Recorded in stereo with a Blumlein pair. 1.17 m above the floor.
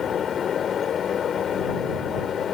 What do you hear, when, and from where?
0.0 s a fan: 25° left